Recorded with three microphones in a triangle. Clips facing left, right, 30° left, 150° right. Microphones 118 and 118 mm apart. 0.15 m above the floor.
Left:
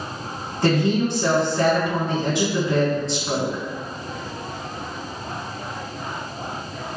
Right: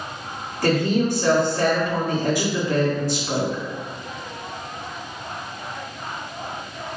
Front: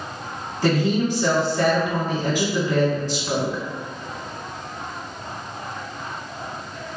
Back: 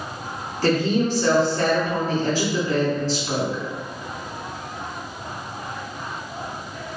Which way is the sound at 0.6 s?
80° left.